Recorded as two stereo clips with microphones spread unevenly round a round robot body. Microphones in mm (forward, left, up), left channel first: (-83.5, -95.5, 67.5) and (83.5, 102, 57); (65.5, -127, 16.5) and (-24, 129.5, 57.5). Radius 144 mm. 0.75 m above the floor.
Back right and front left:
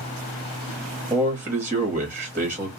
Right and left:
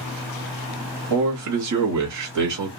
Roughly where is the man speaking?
Behind left.